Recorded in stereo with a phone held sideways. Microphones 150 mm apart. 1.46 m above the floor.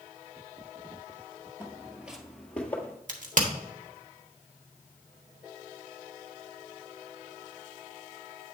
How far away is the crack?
About 1.3 m.